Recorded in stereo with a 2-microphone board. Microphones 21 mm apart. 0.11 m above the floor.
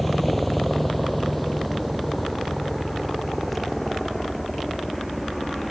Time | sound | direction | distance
0.0 | a helicopter | 5° left (ahead or behind) | ?